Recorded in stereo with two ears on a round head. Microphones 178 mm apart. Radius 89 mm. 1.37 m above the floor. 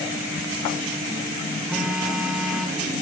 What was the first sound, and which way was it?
A phone buzzing, 5° right (ahead or behind).